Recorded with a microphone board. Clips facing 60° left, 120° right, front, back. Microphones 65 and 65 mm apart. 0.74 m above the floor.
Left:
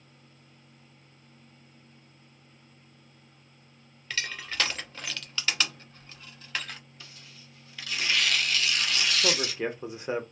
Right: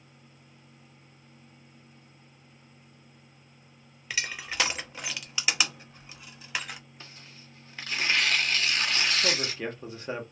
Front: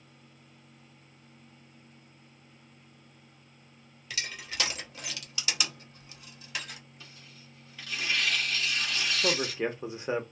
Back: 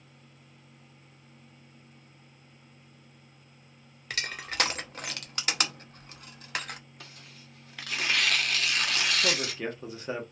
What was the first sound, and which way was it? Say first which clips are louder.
Crushing: even, back 4 dB; 165° left.